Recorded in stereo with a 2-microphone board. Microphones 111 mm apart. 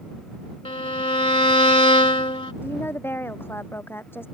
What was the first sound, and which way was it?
A violin, 55° left (ahead or behind).